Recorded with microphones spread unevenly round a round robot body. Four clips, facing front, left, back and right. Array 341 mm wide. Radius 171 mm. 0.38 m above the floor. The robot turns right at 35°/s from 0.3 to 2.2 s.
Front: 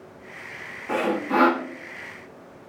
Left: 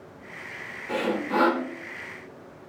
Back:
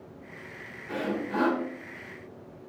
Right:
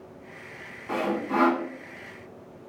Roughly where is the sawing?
Ahead.